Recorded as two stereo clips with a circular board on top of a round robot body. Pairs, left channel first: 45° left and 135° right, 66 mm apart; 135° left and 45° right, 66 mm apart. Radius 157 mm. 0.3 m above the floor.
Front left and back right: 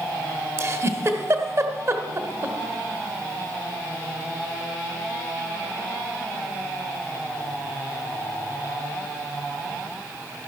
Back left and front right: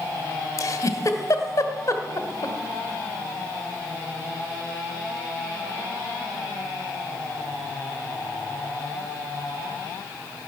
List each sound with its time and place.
0.6 s a giggle: 175° left, 1.6 m